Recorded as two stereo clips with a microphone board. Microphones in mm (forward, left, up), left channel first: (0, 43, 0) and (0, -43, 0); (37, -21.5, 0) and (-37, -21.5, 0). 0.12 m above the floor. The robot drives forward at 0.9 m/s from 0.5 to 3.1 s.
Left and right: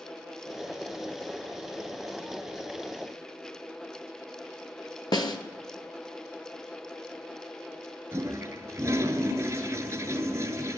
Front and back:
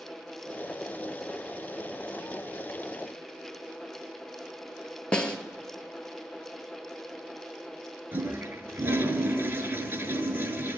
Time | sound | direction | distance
5.1 | a snare drum | 75° left | 1.1 m
8.1 | a toilet flushing | 135° right | 0.9 m